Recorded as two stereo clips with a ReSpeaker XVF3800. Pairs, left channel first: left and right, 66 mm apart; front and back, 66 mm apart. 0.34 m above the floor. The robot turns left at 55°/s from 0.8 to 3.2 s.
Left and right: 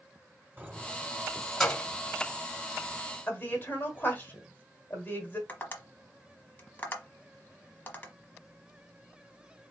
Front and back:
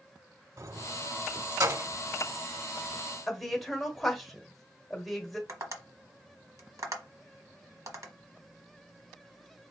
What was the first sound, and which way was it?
Keys jangling, 145° right.